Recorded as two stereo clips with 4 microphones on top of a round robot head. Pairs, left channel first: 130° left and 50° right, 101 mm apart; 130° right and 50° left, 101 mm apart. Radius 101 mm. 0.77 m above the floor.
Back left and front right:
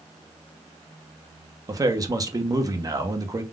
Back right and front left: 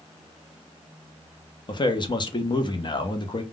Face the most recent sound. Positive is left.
turn(degrees=-100)